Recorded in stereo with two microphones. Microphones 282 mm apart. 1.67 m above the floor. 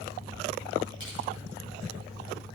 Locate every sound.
1.0 s crushing: 45° left (ahead or behind), 7.5 m